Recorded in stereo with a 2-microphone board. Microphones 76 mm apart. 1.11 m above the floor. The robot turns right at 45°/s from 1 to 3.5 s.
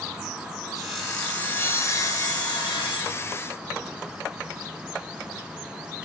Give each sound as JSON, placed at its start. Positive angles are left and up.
{"t": 0.8, "sound": "sawing", "azimuth_deg": -5, "distance_m": 1.8}